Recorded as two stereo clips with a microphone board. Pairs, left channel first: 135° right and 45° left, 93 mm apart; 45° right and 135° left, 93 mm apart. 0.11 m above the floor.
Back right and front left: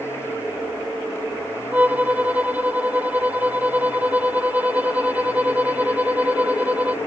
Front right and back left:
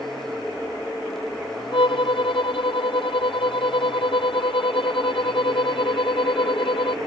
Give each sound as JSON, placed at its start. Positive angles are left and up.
{"t": 1.7, "sound": "a violin", "azimuth_deg": -30}